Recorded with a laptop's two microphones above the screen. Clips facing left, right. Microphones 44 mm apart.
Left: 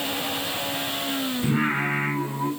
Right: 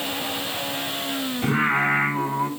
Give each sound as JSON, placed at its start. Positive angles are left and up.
{"t": 1.4, "sound": "singing", "side_deg": -60, "distance_m": 6.0}